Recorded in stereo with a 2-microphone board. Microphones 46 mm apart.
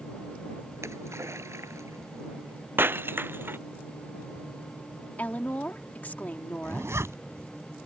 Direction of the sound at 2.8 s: 50° right (ahead or behind).